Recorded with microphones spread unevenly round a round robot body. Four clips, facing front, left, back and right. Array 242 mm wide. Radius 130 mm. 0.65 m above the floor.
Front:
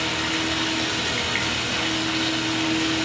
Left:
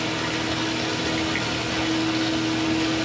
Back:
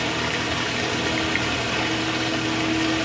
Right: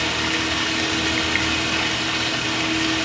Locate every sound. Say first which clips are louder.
0.0 s running water: right 2 dB, back 1 dB; 165° left, 1.2 m